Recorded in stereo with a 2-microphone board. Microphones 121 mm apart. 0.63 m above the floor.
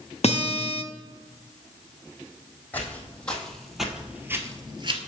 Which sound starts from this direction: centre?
Footsteps, at 2.7 s.